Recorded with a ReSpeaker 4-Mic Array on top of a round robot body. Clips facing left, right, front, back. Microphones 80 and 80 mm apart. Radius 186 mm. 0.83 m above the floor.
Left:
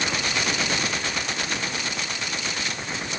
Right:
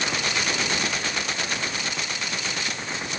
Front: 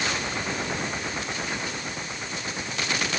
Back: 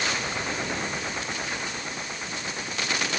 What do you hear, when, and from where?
Only background noise.